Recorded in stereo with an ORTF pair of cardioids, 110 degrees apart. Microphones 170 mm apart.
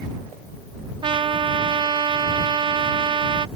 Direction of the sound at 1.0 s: 30° right.